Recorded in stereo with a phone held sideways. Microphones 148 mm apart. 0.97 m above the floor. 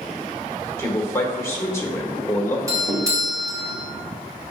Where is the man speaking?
20° left (ahead or behind), 1.2 m.